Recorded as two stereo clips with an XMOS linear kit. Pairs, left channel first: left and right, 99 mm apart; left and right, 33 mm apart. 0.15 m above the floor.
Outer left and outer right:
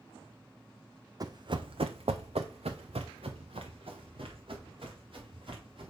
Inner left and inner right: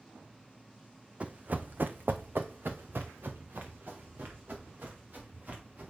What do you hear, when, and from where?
1.2 s running footsteps: 40° right (ahead or behind), 0.7 m; by 5.9 s 60° right (ahead or behind), 3 m